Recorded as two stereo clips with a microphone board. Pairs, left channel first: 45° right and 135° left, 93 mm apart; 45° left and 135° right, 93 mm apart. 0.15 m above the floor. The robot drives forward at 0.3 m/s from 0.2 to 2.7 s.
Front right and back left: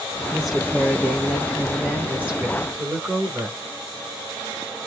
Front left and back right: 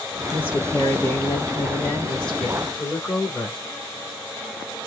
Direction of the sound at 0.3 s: 50° left.